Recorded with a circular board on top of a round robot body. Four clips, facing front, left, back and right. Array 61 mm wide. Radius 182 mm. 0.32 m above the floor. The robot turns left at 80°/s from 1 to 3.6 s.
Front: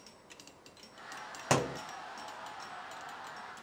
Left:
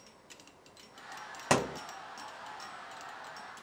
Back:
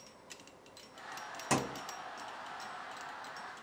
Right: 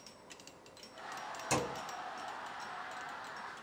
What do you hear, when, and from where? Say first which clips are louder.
1.5 s a thud: left 6 dB, front 3 dB; 65° left, 0.7 m; by 1.8 s 45° left, 0.7 m